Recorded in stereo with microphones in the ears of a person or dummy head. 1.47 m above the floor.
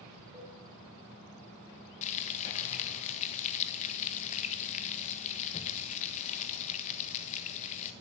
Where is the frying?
35° left (ahead or behind), 1.7 m.